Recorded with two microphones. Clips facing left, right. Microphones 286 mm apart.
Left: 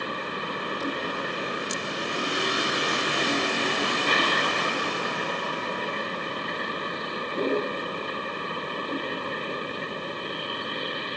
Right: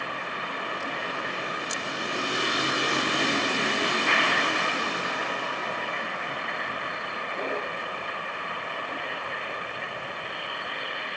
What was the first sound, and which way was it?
A vehicle, 45° left (ahead or behind).